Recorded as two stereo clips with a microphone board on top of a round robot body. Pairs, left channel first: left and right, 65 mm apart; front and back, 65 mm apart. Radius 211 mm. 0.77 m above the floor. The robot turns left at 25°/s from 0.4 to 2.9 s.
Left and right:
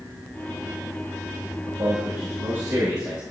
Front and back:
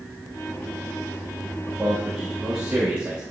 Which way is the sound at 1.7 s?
85° right.